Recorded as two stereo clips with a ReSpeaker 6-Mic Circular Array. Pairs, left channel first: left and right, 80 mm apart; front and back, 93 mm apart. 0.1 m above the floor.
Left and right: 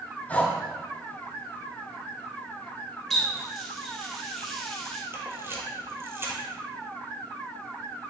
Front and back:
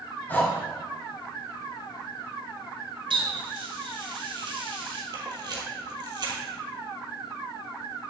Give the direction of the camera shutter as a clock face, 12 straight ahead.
5 o'clock.